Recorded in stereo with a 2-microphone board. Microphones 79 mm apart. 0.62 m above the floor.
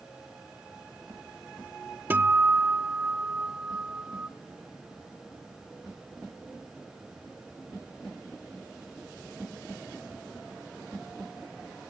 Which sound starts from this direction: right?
A guitar, at 2.1 s.